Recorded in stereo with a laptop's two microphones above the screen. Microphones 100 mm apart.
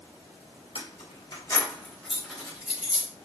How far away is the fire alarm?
I don't hear a fire alarm.